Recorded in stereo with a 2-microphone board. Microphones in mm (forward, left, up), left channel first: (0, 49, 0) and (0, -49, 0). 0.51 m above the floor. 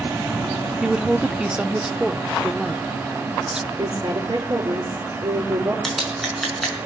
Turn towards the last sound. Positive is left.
turn(degrees=5)  # may be behind; listen again after turning